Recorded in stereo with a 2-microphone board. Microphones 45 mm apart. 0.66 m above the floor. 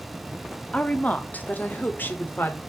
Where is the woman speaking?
25° left (ahead or behind), 1.0 m; by 2.6 s 50° left (ahead or behind), 1.9 m.